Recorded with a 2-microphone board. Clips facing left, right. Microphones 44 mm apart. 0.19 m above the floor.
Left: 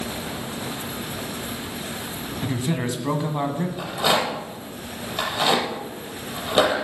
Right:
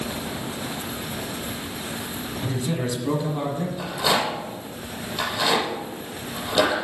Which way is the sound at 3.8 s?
30° left (ahead or behind).